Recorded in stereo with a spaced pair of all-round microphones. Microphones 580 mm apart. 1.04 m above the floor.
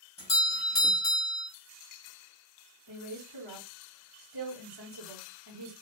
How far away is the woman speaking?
About 1.2 m.